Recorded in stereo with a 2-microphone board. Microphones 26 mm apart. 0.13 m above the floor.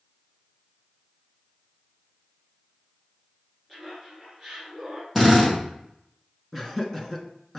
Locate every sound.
3.7 s laughter: 10° left (ahead or behind), 2 m; by 5.0 s centre (ahead or behind), 2.5 m
5.2 s a drill: 5° left (ahead or behind), 3.5 m
6.5 s laughter: 10° left (ahead or behind), 1.3 m